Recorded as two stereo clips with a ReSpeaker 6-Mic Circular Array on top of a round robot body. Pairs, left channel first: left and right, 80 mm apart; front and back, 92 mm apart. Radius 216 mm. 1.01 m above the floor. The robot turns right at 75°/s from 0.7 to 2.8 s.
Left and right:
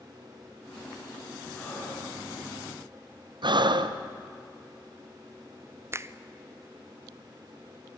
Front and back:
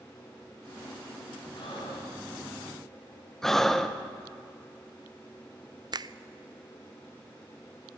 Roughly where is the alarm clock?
I don't hear an alarm clock.